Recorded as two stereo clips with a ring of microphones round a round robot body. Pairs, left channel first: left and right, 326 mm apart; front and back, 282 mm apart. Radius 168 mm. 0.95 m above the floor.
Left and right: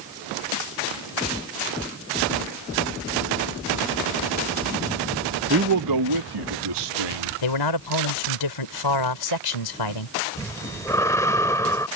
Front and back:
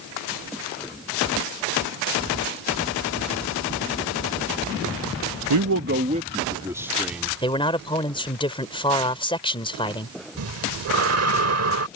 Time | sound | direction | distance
5.5 | a man speaking | 150° right | ?
7.4 | a man speaking | 75° left | ?
10.4 | breathing | 170° left | ?